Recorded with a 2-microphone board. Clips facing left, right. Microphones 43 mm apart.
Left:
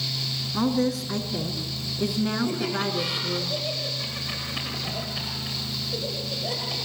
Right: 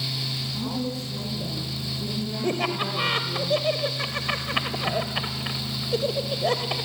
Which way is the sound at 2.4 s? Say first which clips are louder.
Right 1 dB; 45° right (ahead or behind).